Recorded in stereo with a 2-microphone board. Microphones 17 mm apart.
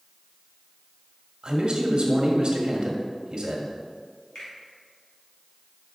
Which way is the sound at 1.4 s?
60° right (ahead or behind).